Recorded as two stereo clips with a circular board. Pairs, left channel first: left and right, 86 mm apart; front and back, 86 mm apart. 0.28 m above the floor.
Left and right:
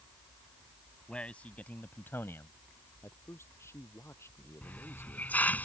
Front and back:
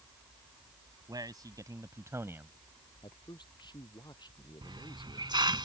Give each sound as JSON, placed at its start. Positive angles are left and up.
{"t": 1.1, "sound": "a man speaking", "azimuth_deg": 165}
{"t": 3.0, "sound": "a man speaking", "azimuth_deg": 30}
{"t": 4.6, "sound": "a hiss", "azimuth_deg": 160}